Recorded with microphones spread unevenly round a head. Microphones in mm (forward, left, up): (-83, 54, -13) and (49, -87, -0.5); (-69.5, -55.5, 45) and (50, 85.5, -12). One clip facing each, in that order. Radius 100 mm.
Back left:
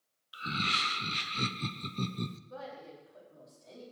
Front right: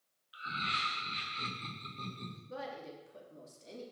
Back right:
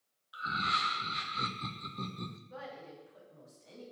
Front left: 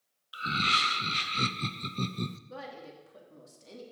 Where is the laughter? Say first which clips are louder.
Back left 7 dB, front left 5 dB; 95° left, 0.7 m.